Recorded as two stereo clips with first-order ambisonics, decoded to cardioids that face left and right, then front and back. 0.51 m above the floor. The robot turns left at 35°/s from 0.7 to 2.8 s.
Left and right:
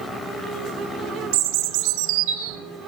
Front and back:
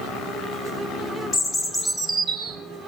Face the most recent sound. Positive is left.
turn(degrees=-120)